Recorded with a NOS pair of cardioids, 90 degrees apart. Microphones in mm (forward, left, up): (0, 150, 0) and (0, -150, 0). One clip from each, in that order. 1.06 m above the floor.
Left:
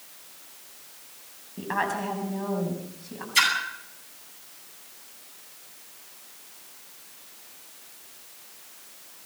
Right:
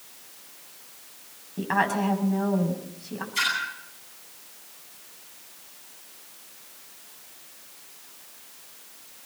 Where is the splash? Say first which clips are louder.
Left 4 dB; 60° left, 10 m.